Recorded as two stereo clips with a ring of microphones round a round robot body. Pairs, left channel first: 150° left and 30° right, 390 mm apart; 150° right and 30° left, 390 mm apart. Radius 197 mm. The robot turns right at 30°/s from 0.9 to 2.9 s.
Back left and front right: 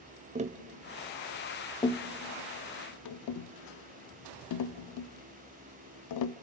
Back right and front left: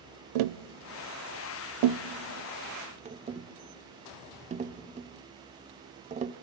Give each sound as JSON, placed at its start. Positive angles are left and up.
{"t": 0.3, "sound": "tapping", "azimuth_deg": 45, "distance_m": 0.5}